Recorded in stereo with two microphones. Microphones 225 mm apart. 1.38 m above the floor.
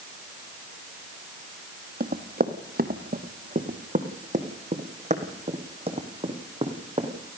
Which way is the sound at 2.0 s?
45° right (ahead or behind).